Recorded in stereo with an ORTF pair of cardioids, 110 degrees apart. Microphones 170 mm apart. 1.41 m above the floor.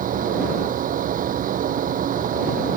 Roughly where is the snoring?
I don't hear snoring.